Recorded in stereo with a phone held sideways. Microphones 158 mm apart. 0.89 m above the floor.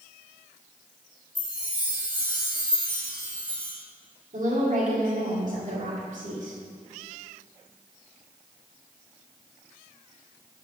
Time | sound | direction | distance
1.4 | a chime | 30° left (ahead or behind) | 1.7 m
4.3 | a woman speaking | 60° right (ahead or behind) | 2 m